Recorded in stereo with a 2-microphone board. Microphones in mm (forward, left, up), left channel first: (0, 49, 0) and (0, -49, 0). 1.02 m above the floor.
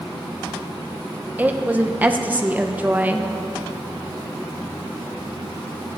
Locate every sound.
1.4 s a woman speaking: 15° right (ahead or behind), 0.8 m